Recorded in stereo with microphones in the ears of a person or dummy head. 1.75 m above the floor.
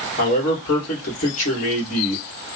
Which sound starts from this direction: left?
A man speaking, at 0.2 s.